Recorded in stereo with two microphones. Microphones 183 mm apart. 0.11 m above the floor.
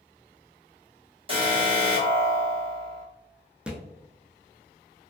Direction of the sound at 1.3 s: 30° right (ahead or behind).